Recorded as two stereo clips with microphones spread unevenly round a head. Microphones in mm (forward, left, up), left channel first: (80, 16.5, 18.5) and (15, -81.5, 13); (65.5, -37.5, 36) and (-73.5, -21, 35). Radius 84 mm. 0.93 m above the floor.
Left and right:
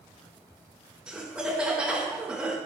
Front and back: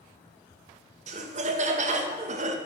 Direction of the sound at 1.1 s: 155° left.